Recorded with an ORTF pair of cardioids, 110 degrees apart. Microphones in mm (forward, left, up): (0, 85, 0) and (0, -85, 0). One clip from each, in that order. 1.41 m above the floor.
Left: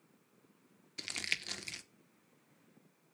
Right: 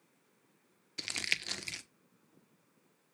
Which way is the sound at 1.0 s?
15° right.